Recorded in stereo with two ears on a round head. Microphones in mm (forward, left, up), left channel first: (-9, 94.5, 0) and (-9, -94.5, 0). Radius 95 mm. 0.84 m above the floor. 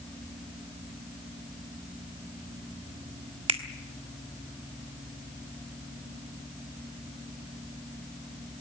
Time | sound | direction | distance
3.5 | a finger snap | 25° right (ahead or behind) | 1.4 m